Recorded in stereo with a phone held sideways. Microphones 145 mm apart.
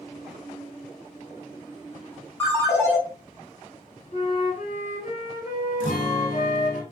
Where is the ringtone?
15° left (ahead or behind), 1.4 m.